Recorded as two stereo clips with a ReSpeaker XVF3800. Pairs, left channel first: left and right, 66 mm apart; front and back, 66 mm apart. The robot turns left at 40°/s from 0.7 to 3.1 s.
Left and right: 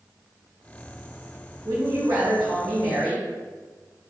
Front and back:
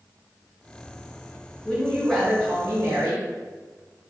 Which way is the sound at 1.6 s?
75° right.